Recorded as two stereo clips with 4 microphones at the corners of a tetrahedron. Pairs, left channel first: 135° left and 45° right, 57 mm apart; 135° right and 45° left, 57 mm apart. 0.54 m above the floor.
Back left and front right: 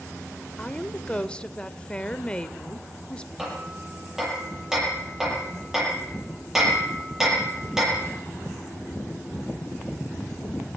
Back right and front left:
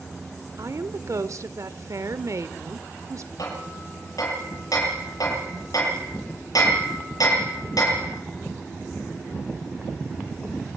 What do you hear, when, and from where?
0.6 s a woman speaking: 65° left, 1.4 m
3.4 s hammering: 130° right, 9 m